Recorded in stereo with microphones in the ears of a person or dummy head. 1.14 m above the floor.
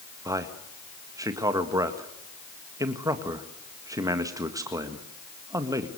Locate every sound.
0.2 s a man speaking: 20° right (ahead or behind), 1.7 m